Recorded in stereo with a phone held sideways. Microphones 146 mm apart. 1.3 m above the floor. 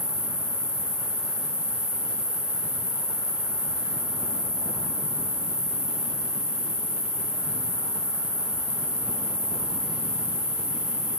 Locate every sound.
0.0 s an insect: 20° right (ahead or behind), 6.5 m